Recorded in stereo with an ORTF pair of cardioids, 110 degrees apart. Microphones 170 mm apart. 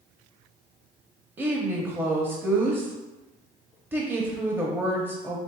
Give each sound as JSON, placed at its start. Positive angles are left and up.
{"t": 1.4, "sound": "a woman speaking", "azimuth_deg": -10, "distance_m": 0.6}